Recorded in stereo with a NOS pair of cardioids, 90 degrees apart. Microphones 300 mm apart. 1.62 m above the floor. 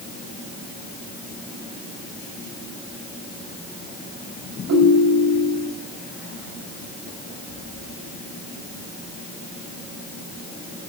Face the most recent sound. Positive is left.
turn(degrees=-65)